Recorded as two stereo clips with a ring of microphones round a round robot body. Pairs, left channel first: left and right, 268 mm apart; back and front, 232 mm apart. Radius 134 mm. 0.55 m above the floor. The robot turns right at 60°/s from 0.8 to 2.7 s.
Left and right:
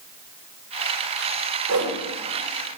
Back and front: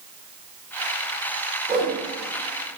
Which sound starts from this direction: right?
A whoosh, at 1.7 s.